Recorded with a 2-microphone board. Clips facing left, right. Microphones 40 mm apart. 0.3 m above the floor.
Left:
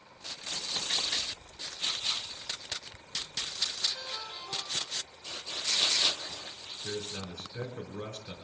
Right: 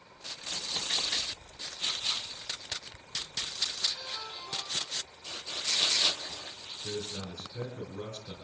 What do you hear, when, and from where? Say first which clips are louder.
3.9 s a ringtone: even; 65° left (ahead or behind), 8 m
6.8 s a man speaking: even; 45° left (ahead or behind), 5.5 m